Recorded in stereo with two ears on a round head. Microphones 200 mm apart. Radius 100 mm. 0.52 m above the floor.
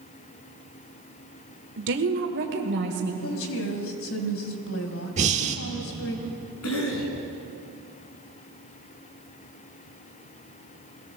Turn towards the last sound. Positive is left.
turn(degrees=70)  # may be behind; listen again after turning